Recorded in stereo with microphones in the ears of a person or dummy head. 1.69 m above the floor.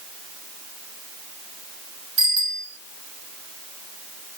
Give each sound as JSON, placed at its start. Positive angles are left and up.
{"t": 2.2, "sound": "a bicycle bell", "side_deg": -75, "distance_m": 5.0}